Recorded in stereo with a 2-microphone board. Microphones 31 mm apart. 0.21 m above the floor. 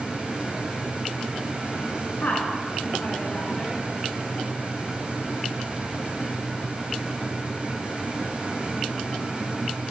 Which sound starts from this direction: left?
A woman speaking, at 2.2 s.